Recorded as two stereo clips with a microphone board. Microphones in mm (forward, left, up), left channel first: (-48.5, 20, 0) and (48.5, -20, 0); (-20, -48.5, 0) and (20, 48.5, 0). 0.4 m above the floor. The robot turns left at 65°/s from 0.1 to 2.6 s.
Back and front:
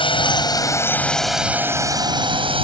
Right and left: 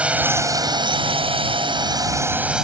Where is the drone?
145° left; by 2.6 s 15° right.